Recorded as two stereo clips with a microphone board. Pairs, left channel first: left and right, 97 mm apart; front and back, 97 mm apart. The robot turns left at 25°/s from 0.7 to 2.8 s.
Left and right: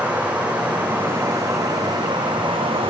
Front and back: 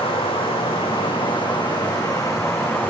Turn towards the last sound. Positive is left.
turn(degrees=-65)